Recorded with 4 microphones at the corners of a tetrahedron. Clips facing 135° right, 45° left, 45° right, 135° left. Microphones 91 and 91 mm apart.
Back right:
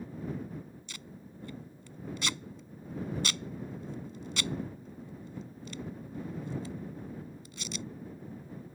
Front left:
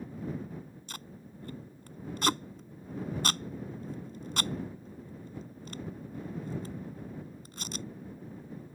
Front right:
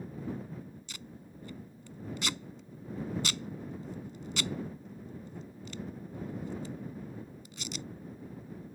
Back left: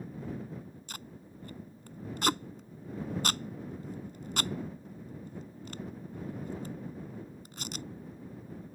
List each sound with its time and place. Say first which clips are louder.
0.9 s tape being pulled: front left 1 dB, back left 1 dB; 90° left